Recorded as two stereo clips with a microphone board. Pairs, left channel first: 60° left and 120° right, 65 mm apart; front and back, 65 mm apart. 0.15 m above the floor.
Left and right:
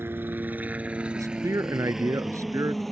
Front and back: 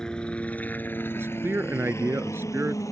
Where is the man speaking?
135° right.